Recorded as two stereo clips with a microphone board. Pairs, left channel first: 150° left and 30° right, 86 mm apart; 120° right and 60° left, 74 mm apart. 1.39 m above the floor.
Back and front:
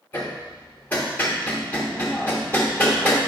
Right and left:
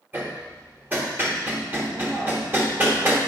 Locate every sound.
0.1 s hammering: 100° left, 1.1 m